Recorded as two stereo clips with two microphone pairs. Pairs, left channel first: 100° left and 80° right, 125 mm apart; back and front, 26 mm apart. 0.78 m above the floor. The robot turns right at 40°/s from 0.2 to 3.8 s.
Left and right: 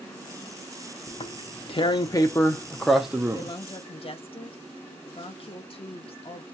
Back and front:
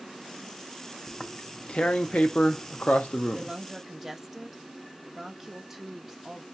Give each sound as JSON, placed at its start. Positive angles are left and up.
{"t": 1.1, "sound": "tearing paper", "azimuth_deg": 115, "distance_m": 0.5}
{"t": 3.3, "sound": "a woman speaking", "azimuth_deg": 60, "distance_m": 0.6}